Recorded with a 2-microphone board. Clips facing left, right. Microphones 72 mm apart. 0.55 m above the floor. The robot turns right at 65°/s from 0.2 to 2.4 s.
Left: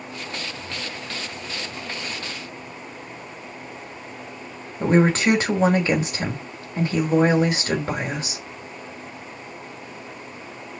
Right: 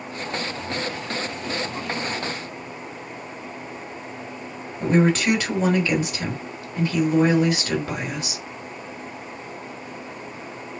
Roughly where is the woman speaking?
Left.